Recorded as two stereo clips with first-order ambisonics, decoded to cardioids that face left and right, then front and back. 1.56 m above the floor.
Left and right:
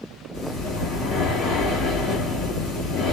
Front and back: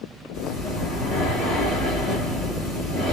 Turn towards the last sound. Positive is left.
turn(degrees=35)